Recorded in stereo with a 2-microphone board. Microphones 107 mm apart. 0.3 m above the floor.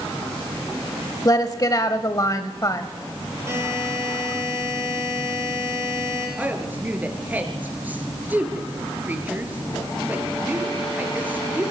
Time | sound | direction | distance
1.2 | a woman speaking | 35° left (ahead or behind) | 1.1 m
3.5 | a buzzer | 25° right (ahead or behind) | 8 m
6.4 | a woman speaking | 15° right (ahead or behind) | 4 m